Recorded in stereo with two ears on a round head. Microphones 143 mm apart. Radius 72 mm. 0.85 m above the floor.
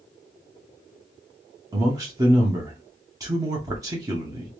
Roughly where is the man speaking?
Right.